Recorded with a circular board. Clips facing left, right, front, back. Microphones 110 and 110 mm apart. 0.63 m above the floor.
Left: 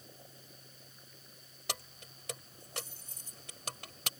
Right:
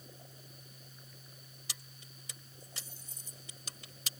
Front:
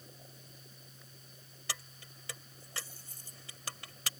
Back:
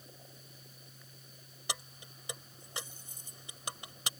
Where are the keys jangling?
110° left.